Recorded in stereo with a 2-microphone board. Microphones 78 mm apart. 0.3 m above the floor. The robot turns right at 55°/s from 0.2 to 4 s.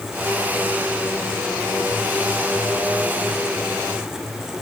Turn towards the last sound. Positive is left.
No sound to turn to.